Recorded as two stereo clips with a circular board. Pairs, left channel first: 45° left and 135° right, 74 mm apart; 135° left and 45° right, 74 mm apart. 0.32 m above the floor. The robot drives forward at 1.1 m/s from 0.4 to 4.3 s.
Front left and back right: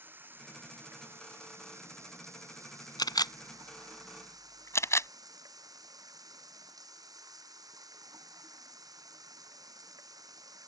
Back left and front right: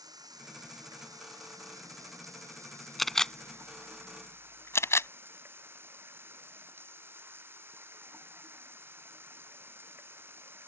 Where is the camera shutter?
45° left; by 5.1 s 90° left.